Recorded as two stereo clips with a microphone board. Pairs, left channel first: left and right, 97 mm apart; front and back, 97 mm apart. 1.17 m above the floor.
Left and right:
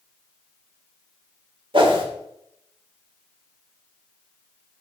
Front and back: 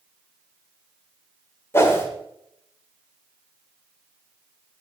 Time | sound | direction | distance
1.7 | a whoosh | 65° right | 1.9 m